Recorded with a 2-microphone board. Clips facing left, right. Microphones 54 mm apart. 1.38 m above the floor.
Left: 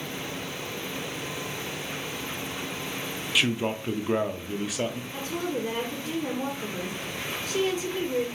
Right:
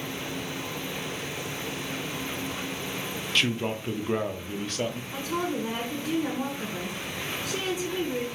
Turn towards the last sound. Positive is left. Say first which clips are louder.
# right 1 dB
turn(degrees=-70)  # may be behind; listen again after turning